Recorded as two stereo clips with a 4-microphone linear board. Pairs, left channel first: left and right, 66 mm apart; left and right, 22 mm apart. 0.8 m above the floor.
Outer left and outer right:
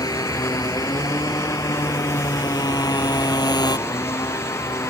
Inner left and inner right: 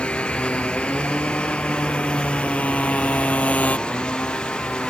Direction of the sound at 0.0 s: 70° left (ahead or behind).